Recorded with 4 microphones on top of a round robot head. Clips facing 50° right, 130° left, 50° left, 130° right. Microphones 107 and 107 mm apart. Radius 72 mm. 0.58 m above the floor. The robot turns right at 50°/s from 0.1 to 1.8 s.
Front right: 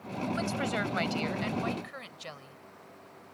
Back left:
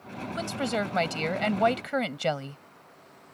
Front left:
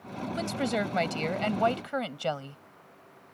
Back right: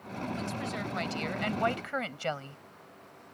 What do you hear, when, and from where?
0.3 s a woman speaking: 50° left; by 2.6 s 120° left